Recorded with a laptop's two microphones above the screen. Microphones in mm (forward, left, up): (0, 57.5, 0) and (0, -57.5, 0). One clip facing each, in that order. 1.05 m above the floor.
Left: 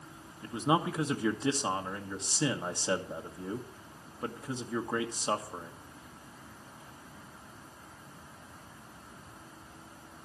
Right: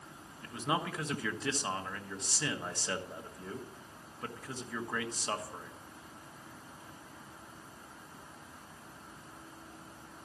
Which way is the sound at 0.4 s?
20° left (ahead or behind).